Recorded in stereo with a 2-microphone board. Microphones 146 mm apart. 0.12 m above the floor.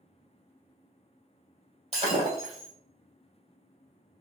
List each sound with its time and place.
1.9 s breaking glass: 45° right (ahead or behind), 2 m